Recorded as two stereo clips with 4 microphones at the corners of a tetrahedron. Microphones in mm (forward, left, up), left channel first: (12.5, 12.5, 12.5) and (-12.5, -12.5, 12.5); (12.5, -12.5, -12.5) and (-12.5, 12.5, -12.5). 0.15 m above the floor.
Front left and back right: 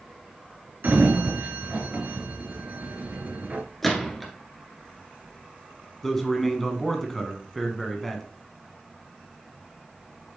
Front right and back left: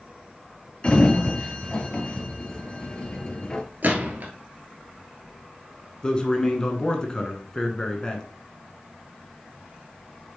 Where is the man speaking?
25° right, 1.5 m.